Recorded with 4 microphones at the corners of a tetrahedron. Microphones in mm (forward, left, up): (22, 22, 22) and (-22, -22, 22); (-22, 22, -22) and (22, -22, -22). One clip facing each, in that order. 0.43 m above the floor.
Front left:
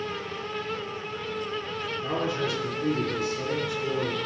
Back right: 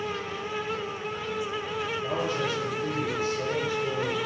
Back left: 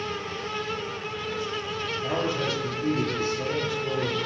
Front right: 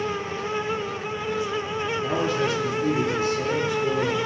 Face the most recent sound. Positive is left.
turn(degrees=30)